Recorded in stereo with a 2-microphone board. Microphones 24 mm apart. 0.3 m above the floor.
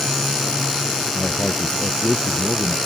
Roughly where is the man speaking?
Left.